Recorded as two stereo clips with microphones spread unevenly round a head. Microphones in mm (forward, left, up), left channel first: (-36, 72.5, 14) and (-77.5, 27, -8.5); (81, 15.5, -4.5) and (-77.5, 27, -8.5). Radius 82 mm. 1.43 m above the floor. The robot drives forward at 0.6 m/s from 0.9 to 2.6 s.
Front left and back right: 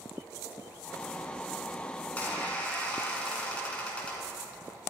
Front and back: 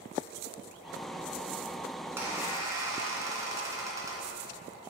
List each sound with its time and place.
2.0 s a squeak: 95° left, 2.5 m; by 4.3 s 105° left, 3 m